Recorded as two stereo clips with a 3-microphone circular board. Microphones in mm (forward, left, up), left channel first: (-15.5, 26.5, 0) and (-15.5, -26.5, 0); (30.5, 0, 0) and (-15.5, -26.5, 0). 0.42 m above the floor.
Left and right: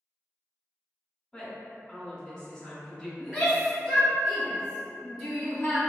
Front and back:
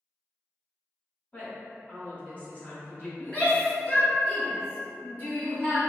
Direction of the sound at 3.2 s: Straight ahead.